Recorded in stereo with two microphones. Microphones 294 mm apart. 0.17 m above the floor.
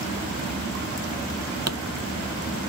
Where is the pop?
55° right (ahead or behind).